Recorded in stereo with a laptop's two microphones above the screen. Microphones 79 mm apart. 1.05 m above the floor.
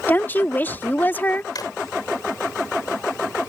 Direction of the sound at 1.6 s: 55° left (ahead or behind).